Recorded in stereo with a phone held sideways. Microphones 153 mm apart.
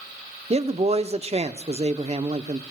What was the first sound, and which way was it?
A man speaking, 40° right (ahead or behind).